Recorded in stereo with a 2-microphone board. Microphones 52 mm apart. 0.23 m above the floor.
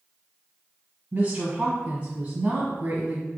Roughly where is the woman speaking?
Right.